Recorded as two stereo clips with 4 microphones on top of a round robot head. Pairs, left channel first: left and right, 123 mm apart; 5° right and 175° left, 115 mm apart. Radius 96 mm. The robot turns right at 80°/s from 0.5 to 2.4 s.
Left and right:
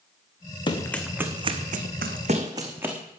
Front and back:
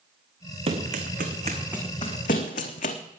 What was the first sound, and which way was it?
Running footsteps, 140° left.